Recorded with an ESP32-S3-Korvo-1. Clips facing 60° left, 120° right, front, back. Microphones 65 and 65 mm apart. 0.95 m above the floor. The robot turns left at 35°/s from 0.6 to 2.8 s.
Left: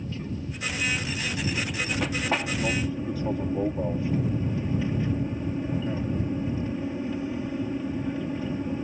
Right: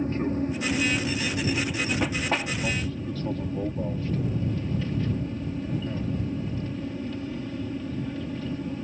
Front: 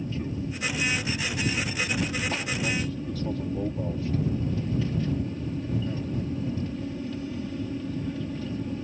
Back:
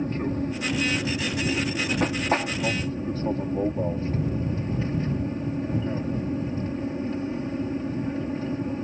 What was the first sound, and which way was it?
An aircraft, 155° right.